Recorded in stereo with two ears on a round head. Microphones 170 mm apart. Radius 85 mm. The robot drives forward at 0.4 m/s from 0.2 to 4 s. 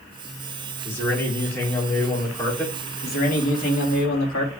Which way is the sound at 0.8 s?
15° left (ahead or behind).